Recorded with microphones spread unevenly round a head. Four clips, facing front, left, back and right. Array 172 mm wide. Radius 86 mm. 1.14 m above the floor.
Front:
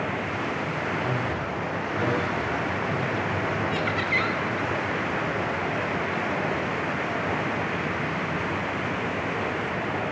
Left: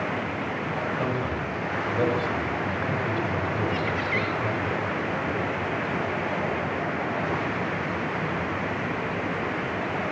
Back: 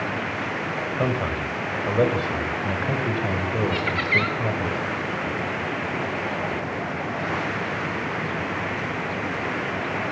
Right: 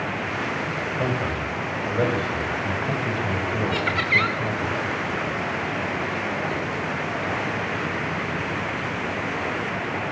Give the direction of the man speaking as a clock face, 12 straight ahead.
5 o'clock.